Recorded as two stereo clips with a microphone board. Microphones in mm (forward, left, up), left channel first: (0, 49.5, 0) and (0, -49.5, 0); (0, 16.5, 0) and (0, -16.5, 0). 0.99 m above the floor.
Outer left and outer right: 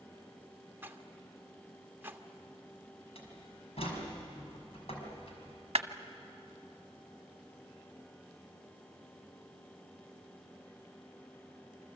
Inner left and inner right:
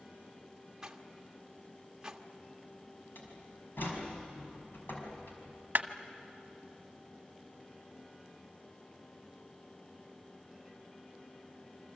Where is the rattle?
20° right (ahead or behind), 1.5 m.